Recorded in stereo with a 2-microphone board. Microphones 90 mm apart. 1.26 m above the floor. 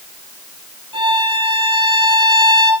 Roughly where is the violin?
Right.